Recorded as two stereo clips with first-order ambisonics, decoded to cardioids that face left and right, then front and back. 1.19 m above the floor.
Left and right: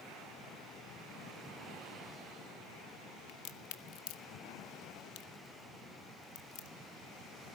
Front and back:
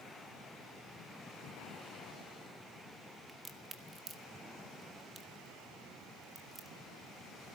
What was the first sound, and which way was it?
A crack, 105° left.